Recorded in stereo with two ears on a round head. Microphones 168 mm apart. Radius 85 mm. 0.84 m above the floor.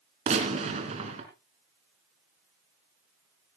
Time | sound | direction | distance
0.3 | a gunshot | 40° right (ahead or behind) | 3.5 m